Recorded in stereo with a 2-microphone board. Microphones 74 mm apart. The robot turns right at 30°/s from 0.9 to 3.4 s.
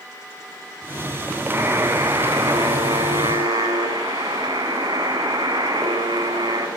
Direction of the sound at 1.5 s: 145° right.